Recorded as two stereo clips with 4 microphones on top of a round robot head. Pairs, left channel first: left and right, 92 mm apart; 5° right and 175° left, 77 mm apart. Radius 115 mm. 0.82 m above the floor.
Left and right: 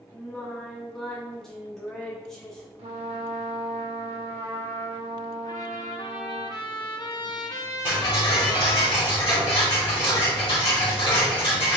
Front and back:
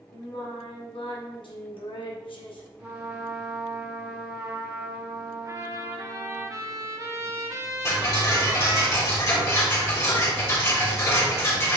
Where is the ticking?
45° left, 3 m.